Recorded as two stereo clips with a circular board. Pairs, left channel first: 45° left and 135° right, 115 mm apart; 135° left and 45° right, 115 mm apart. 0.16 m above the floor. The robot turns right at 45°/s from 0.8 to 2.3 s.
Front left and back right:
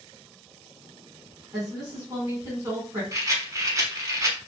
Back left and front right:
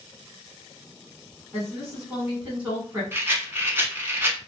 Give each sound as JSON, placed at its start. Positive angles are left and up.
{"t": 1.5, "sound": "a woman speaking", "azimuth_deg": -140, "distance_m": 1.2}
{"t": 3.1, "sound": "a rattle", "azimuth_deg": -100, "distance_m": 0.6}